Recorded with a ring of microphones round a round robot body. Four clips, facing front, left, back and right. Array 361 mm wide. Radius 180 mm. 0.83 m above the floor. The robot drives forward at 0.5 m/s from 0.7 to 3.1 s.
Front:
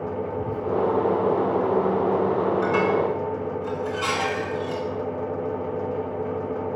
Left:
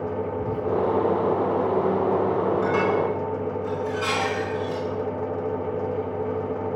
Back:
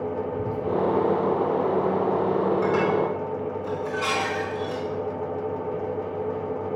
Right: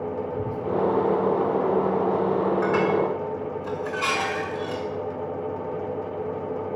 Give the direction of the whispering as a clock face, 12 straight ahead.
4 o'clock.